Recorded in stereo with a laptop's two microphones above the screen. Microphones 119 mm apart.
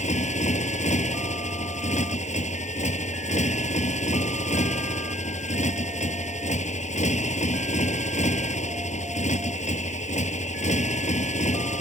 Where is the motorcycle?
85° left.